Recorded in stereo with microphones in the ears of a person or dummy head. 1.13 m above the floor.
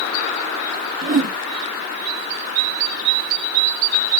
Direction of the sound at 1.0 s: 35° right (ahead or behind).